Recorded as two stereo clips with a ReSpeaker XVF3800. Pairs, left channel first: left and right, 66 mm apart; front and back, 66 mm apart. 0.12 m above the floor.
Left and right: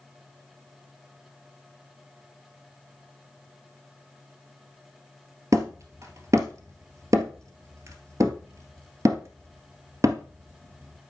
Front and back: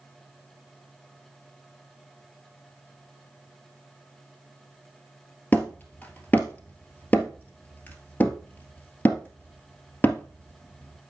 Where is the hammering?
60° right, 1.7 m.